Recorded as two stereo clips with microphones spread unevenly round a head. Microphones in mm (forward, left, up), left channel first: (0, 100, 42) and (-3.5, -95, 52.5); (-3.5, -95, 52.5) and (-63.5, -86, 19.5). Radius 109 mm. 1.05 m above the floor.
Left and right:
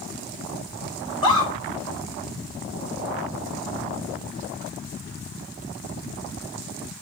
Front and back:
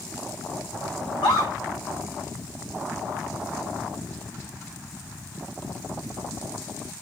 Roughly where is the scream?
Ahead.